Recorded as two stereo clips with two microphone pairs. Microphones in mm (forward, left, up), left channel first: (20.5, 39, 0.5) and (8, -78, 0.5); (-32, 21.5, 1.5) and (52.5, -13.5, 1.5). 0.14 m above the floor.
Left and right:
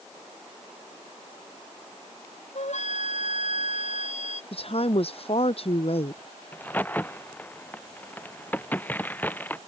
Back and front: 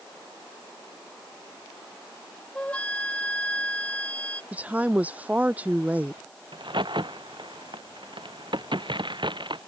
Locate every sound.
2.5 s a flute: 80° left
4.5 s a woman speaking: 50° left
6.5 s a crack: 10° left